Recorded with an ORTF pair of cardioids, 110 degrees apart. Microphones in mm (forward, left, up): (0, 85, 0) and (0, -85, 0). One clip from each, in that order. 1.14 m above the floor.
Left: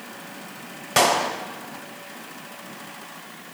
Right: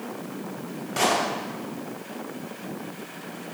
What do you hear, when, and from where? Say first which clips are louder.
1.0 s a clap: left 4 dB; 65° left, 4 m